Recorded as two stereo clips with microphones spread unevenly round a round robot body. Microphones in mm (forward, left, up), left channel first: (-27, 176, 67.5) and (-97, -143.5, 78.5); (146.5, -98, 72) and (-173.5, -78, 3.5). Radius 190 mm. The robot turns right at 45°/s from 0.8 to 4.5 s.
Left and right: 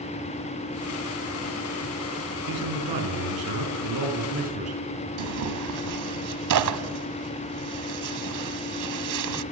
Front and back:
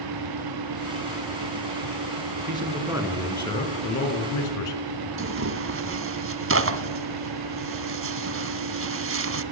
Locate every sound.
2.5 s a man speaking: 125° right, 5.5 m; by 4.8 s 35° right, 5.5 m
5.2 s tearing paper: 135° right, 1.6 m